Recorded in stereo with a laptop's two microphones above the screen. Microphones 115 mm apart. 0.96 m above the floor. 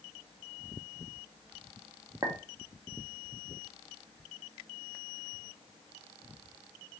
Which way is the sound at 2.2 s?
30° right (ahead or behind).